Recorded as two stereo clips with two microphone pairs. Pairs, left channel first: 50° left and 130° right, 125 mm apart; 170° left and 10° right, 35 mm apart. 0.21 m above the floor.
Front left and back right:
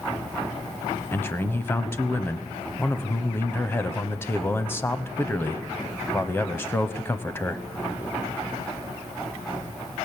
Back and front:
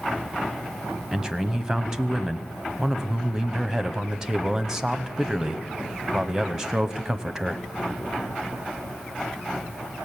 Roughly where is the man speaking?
Ahead.